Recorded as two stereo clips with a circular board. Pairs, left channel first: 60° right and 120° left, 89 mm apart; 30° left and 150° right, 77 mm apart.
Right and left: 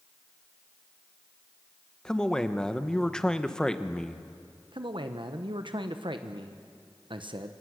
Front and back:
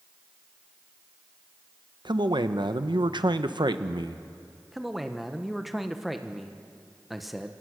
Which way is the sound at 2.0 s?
140° right.